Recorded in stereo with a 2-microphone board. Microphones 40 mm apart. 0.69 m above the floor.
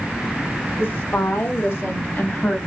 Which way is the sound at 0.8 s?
60° left (ahead or behind).